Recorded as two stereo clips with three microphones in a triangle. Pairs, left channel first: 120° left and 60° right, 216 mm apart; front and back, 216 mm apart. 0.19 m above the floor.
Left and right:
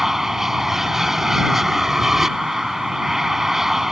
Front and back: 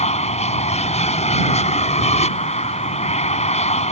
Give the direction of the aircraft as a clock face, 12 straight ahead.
11 o'clock.